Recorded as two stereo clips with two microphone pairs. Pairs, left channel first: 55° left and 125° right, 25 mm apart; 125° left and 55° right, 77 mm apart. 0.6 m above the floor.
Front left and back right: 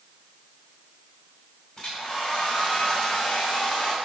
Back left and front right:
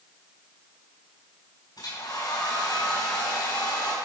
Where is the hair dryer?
105° left, 4.5 m.